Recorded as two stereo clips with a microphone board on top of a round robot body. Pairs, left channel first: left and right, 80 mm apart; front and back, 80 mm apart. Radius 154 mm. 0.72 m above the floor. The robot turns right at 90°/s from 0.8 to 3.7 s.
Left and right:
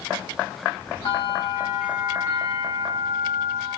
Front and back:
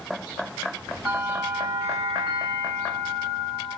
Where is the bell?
110° left, 6 m; by 3.8 s 10° right, 6 m.